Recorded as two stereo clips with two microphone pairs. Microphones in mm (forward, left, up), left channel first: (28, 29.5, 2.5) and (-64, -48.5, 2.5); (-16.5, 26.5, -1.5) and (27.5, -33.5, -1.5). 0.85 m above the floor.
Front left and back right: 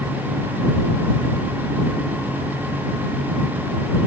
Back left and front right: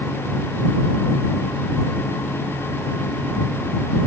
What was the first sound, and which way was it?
Only background noise.